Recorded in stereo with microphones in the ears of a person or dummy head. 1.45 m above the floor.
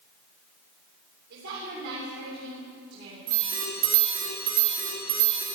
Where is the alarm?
45° right (ahead or behind), 4 m.